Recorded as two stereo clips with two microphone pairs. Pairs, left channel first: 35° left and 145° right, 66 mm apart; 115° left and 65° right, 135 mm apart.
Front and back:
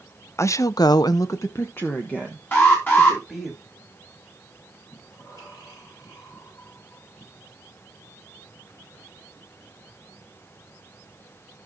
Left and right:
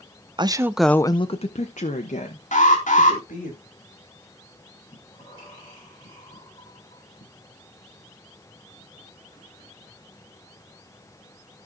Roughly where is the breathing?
Ahead left.